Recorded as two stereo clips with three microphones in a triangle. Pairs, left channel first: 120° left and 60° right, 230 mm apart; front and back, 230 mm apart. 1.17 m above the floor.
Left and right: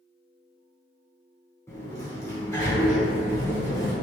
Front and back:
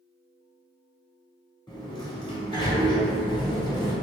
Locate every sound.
1.7 s a sliding door: 55° left, 0.9 m